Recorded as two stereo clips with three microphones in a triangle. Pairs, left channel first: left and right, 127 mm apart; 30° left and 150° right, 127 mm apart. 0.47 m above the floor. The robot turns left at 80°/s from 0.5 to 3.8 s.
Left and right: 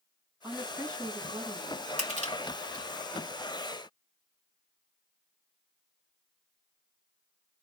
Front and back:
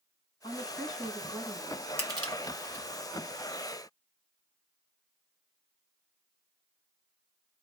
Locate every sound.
0.4 s a woman speaking: straight ahead, 2 m; by 1.9 s 110° right, 2 m
2.0 s crushing: 80° right, 1.7 m; by 2.9 s 150° right, 1.7 m